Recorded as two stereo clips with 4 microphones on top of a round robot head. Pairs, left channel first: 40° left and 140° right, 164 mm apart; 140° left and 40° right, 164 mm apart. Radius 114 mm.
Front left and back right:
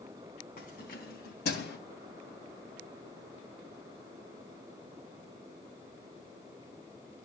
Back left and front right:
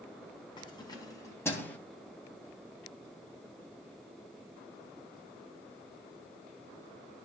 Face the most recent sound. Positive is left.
turn(degrees=60)